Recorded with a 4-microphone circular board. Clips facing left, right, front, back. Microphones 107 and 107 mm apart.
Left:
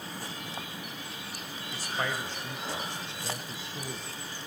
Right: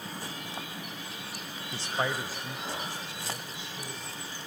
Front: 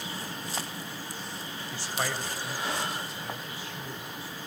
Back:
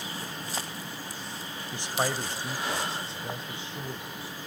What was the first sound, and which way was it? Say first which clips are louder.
A man speaking: right 2 dB, back 4 dB; 120° right.